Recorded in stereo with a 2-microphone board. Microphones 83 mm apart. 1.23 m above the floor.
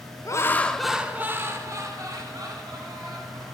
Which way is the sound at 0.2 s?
40° left (ahead or behind).